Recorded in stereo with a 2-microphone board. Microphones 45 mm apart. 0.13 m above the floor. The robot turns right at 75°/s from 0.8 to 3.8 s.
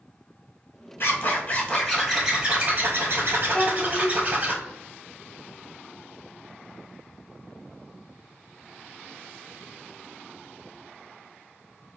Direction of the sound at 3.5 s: 20° left (ahead or behind).